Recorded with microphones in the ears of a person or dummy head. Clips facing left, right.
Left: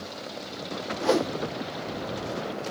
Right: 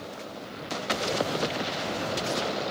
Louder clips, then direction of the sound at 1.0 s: Left 7 dB; 75° left (ahead or behind).